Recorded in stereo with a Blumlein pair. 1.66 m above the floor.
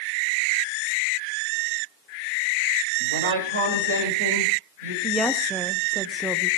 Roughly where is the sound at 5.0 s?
Ahead.